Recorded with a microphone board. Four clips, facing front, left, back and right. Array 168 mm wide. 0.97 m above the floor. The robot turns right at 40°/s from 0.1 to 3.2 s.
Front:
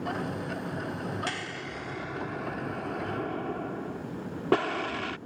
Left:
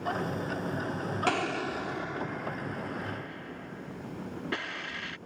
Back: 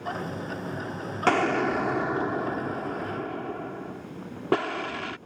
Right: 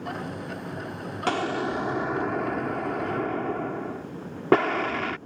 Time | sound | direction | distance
1.3 | an explosion | 170° right | ?